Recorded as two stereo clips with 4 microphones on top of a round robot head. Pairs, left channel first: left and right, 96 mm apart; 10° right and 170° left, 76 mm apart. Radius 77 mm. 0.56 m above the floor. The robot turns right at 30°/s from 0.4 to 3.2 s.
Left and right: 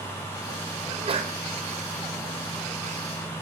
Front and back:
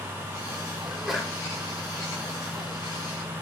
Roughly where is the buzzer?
No buzzer in this recording.